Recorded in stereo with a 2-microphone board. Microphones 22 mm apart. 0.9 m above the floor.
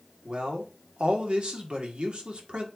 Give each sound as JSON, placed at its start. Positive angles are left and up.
{"t": 0.2, "sound": "a man speaking", "side_deg": -55, "distance_m": 1.7}